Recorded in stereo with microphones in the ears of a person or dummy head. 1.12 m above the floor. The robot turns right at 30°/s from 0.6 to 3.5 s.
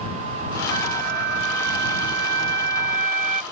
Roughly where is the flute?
Behind right.